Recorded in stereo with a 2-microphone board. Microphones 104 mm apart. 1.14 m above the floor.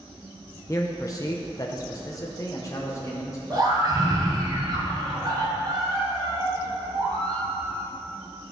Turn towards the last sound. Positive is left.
turn(degrees=-40)  # may be behind; listen again after turning